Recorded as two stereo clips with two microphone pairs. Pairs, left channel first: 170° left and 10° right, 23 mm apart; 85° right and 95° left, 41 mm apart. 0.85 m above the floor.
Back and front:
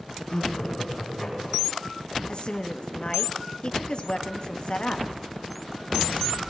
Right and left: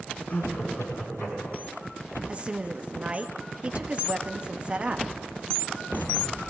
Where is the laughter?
125° right, 9 m; by 1.8 s 130° right, 9 m.